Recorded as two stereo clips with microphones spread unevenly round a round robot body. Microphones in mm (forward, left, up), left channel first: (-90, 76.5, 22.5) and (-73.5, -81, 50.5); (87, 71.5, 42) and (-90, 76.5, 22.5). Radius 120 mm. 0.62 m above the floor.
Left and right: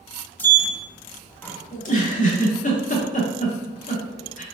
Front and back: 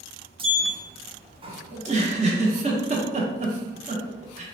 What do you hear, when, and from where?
0.4 s a sliding door: 155° left, 0.7 m
1.7 s a giggle: 130° left, 0.8 m